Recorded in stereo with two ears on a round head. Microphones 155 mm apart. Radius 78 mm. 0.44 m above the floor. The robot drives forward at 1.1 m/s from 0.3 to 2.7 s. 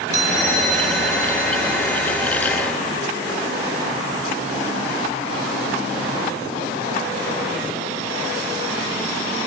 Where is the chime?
20° right (ahead or behind), 2.5 m; by 2.2 s 10° right (ahead or behind), 4 m.